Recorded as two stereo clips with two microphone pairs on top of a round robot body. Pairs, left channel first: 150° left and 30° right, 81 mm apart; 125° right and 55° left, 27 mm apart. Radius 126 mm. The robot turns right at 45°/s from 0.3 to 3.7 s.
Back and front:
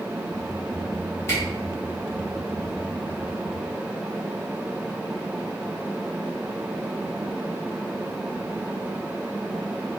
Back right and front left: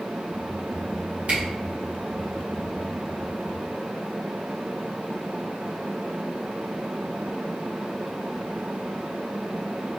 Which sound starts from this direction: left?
A camera shutter, at 1.3 s.